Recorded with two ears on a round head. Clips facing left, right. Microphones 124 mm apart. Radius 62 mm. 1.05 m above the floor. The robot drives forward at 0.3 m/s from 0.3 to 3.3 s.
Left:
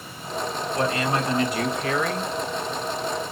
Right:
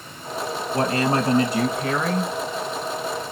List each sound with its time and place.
0.7 s a woman speaking: 30° right (ahead or behind), 1.3 m; by 2.3 s 20° right (ahead or behind), 1.6 m